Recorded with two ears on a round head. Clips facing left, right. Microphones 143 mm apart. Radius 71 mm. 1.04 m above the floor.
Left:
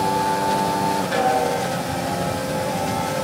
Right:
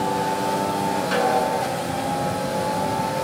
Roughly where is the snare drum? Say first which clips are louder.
Even; right.